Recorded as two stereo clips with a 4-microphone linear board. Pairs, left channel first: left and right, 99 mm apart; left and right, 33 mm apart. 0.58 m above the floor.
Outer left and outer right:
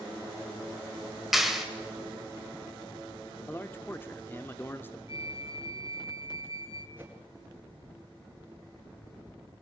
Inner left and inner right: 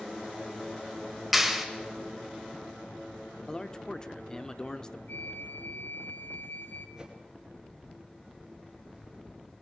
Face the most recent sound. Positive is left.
turn(degrees=-20)  # may be behind; listen again after turning